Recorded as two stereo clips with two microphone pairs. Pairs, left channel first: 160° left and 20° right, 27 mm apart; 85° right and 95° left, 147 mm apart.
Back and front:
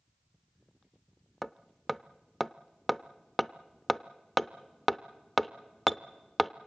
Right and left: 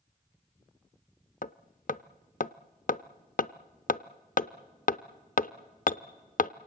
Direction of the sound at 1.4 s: 105° right.